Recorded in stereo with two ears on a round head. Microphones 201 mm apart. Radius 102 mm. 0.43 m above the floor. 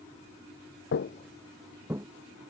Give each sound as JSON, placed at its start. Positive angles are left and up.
{"t": 0.9, "sound": "footsteps", "side_deg": 55}